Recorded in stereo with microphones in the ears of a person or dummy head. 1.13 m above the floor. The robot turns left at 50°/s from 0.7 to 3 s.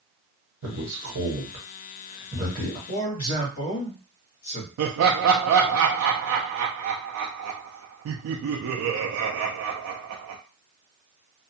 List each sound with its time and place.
0.6 s a man speaking: 90° right, 1.4 m; by 2.8 s 15° left (ahead or behind), 1.4 m
2.9 s a man speaking: 35° left (ahead or behind), 1.3 m; by 4.7 s 40° left (ahead or behind), 1.3 m
4.8 s laughter: 70° right (ahead or behind), 0.5 m